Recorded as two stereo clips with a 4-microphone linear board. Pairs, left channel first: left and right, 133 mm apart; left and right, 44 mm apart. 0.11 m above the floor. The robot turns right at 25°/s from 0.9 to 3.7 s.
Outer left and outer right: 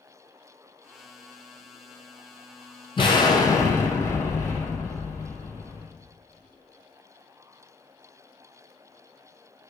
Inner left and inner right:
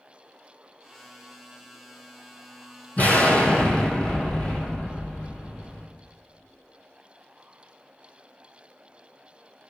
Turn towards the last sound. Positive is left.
turn(degrees=20)  # may be behind; listen again after turning